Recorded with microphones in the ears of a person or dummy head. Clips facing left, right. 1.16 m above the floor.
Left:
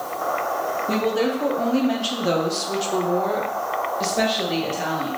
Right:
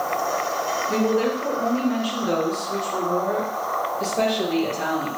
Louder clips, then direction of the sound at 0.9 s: Right 1 dB; 70° left (ahead or behind).